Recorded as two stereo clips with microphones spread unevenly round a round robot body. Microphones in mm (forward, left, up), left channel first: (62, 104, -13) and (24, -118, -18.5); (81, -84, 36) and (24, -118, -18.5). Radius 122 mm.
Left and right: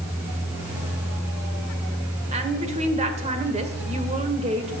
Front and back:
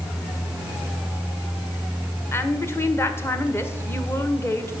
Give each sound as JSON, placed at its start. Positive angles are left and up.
{"t": 2.3, "sound": "a woman speaking", "azimuth_deg": -65, "distance_m": 1.6}